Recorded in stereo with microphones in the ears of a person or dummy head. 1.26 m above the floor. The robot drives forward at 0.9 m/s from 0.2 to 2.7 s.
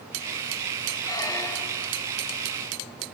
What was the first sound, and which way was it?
A squeak, 20° left (ahead or behind).